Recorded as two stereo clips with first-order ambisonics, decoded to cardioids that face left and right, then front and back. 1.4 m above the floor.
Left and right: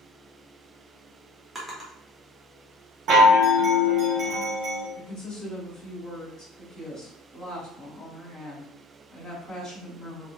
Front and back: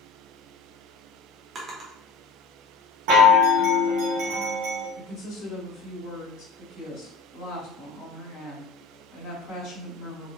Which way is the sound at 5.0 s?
40° left.